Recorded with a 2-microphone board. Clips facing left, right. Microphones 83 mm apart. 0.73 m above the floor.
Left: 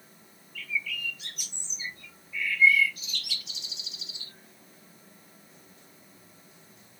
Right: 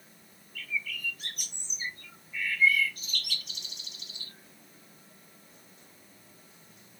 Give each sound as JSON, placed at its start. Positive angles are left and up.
{"t": 0.6, "sound": "a bird", "side_deg": -45, "distance_m": 0.6}